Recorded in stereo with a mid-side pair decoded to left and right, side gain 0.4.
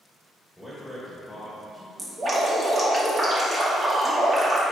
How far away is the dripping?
About 2.5 m.